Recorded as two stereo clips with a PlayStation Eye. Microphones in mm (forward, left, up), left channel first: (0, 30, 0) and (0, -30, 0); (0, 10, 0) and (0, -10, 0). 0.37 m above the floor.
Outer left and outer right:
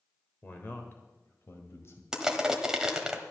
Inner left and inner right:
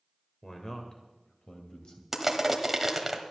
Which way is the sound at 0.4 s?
35° left (ahead or behind).